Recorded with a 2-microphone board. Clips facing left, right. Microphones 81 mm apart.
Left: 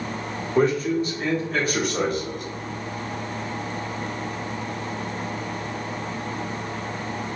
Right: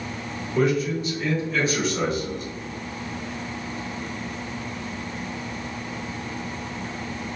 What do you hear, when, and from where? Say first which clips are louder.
0.6 s a man speaking: left 2 dB; 35° left (ahead or behind), 1.5 m; by 2.5 s 65° left (ahead or behind), 1.6 m